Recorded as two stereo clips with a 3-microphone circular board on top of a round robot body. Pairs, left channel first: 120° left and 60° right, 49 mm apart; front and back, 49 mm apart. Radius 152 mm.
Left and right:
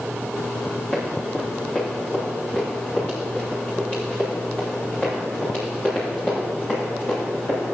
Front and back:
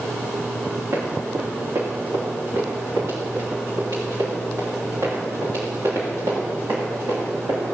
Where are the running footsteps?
175° right, 4.5 m; by 7.6 s straight behind, 8.5 m.